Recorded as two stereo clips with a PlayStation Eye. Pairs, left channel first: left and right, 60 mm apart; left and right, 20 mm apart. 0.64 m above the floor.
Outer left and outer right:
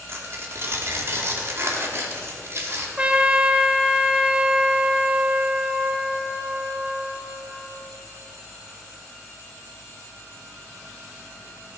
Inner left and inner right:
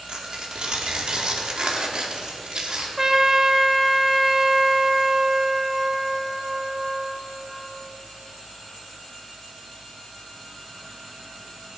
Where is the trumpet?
20° right (ahead or behind), 0.8 m.